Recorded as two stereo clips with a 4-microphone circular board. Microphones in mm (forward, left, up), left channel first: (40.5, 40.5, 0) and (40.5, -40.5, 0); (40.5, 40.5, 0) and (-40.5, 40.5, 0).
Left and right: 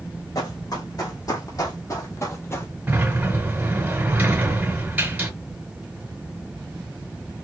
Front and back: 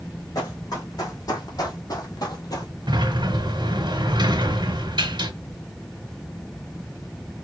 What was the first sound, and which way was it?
Running footsteps, 50° left.